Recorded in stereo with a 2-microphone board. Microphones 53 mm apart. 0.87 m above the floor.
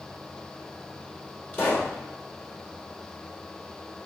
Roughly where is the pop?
Left.